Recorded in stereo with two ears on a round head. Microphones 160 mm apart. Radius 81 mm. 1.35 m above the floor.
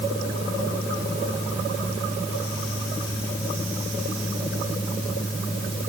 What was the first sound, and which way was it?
Only background noise.